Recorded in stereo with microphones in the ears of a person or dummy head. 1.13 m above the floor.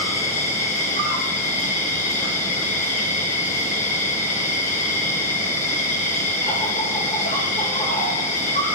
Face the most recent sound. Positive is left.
turn(degrees=40)  # may be behind; listen again after turning